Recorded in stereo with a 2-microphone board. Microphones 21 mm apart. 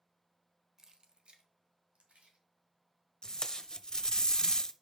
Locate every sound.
0.8 s keys jangling: 30° right (ahead or behind), 0.9 m; by 3.6 s 75° right (ahead or behind), 3.5 m
3.2 s tape being pulled: 40° left (ahead or behind), 0.5 m